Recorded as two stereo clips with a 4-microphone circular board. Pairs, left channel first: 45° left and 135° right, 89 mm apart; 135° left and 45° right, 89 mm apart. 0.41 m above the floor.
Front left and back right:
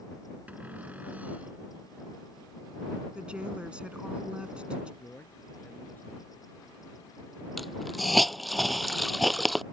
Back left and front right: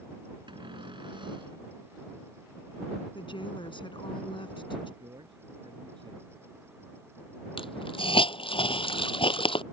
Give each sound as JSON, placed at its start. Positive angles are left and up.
{"t": 0.5, "sound": "a cupboard door", "azimuth_deg": -65}
{"t": 3.1, "sound": "a woman speaking", "azimuth_deg": 145}
{"t": 5.0, "sound": "a man speaking", "azimuth_deg": -25}
{"t": 7.6, "sound": "a hiss", "azimuth_deg": 135}